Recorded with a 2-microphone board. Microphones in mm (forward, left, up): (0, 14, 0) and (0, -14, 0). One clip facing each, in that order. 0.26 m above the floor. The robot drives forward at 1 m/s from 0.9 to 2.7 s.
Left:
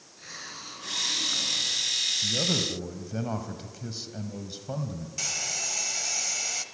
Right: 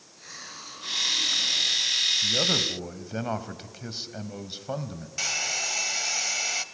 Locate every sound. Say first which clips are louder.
0.2 s a hiss: left 1 dB; 10° left (ahead or behind), 4 m
2.2 s a man speaking: right 3 dB; 30° right (ahead or behind), 1.4 m
5.2 s a hair dryer: right 5 dB; 25° right (ahead or behind), 1.1 m